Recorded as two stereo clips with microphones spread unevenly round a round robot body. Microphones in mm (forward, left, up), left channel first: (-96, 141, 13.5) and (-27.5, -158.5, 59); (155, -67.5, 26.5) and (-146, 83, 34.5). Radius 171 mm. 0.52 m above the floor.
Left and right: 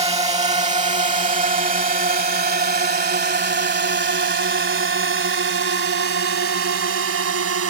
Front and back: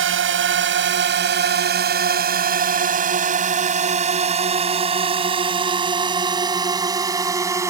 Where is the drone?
150° right; by 7.7 s 125° right.